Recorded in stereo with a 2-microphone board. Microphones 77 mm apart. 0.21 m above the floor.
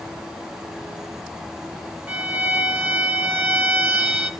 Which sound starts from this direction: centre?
A violin, at 2.1 s.